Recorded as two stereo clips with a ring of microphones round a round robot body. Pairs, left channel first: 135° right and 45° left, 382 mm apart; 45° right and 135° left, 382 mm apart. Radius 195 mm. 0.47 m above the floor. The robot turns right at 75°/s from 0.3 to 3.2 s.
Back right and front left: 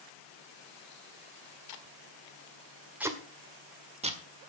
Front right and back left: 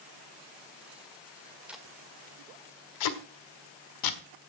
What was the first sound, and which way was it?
Tape being pulled, 140° right.